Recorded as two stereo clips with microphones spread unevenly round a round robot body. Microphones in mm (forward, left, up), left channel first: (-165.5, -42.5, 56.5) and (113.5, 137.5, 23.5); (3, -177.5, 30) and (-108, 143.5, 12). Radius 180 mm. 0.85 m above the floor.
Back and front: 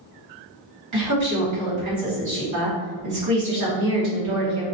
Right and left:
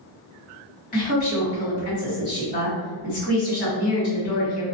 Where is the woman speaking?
Straight ahead, 1.5 m.